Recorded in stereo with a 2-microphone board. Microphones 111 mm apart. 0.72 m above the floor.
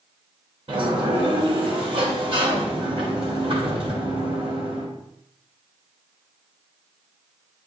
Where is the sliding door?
55° right (ahead or behind), 2.5 m.